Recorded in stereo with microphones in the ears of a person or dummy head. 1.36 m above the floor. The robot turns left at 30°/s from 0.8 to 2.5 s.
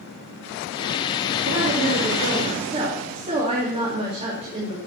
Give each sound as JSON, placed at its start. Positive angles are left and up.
{"t": 1.5, "sound": "a woman speaking", "azimuth_deg": -115, "distance_m": 2.5}